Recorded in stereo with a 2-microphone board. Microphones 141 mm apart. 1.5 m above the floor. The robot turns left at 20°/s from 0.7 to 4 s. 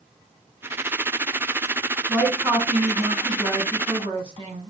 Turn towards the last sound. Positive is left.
turn(degrees=-40)